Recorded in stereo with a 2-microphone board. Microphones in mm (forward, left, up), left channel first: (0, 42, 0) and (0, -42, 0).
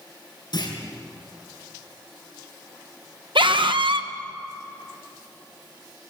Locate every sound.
0.5 s a clunk: 60° left (ahead or behind), 6 m
3.4 s a scream: 80° right, 1.8 m